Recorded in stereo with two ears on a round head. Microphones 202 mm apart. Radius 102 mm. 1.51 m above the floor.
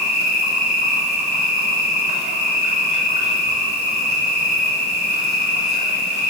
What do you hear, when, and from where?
0.0 s an insect: 30° right (ahead or behind), 0.9 m